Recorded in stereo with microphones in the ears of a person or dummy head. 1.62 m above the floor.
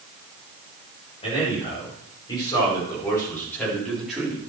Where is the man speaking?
30° left (ahead or behind), 7 m; by 4.4 s 5° right (ahead or behind), 4 m.